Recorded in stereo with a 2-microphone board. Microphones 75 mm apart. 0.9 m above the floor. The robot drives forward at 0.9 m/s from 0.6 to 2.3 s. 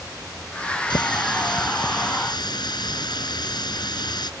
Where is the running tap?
85° left; by 4.3 s 75° left (ahead or behind).